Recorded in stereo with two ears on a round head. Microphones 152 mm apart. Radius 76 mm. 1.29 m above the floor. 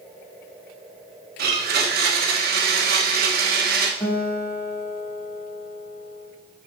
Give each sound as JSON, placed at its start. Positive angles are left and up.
{"t": 1.4, "sound": "a blender", "side_deg": -65, "distance_m": 1.2}
{"t": 4.0, "sound": "a guitar", "side_deg": 25, "distance_m": 2.0}